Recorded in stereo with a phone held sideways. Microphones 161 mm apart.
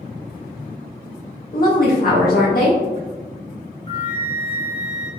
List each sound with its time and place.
1.5 s a woman speaking: 60° left (ahead or behind), 0.6 m
3.9 s a flute: 35° left (ahead or behind), 0.6 m